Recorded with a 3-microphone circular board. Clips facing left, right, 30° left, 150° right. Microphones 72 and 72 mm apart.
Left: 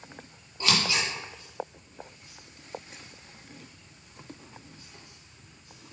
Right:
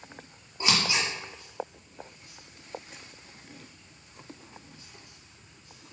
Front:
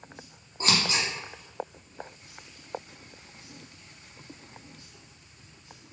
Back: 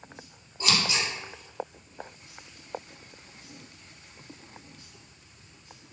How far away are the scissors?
About 1.8 m.